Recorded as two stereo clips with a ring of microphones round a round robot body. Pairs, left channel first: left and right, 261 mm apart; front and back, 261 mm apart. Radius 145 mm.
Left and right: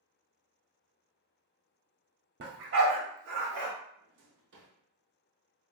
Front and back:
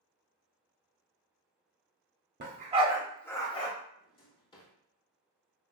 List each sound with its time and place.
2.4 s a dog barking: 135° right, 0.8 m; by 3.7 s 65° right, 0.9 m
4.0 s a drawer: 65° right, 0.8 m